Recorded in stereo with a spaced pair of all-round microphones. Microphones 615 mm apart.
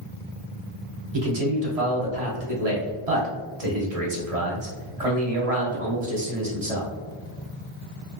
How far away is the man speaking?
About 1.2 m.